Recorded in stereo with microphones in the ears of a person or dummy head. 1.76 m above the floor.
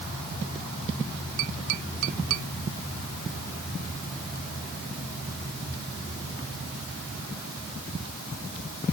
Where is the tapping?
70° right (ahead or behind).